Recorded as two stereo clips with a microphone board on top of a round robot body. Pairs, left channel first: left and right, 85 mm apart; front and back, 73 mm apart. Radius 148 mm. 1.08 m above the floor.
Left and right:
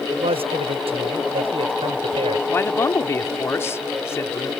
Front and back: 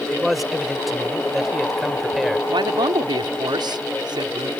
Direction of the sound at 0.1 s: 90° right.